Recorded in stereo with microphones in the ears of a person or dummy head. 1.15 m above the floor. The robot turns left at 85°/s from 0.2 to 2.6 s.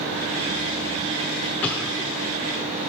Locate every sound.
1.6 s an explosion: 10° left (ahead or behind), 0.8 m; by 2.3 s 10° right (ahead or behind), 0.8 m